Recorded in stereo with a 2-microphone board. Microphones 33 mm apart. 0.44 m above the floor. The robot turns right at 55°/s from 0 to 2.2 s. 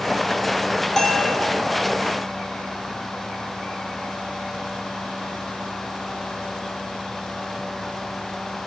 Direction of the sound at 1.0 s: 15° left (ahead or behind).